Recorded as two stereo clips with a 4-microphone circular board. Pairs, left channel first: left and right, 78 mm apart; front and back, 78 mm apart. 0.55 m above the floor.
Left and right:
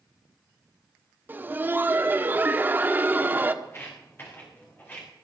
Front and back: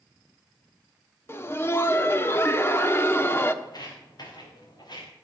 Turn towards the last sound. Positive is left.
turn(degrees=25)